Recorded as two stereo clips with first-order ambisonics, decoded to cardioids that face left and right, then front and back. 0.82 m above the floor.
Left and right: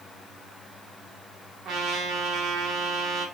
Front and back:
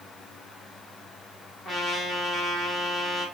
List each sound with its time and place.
1.6 s a trumpet: 70° right, 1.1 m